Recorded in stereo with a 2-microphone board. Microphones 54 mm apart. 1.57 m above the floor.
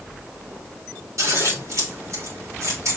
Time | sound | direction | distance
1.2 | scissors | 70° right (ahead or behind) | 3 m